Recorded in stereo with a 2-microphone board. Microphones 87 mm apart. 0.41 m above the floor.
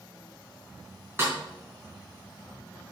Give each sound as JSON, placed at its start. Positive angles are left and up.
{"t": 1.2, "sound": "a snare drum", "side_deg": -25, "distance_m": 4.0}